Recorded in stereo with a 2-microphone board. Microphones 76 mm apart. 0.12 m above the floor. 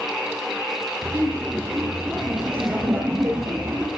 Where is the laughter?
25° right (ahead or behind), 2.5 m.